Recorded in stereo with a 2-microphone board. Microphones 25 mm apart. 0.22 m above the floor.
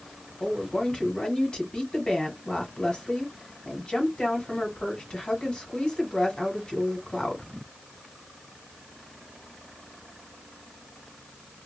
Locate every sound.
0.4 s a woman speaking: 40° left (ahead or behind), 1.3 m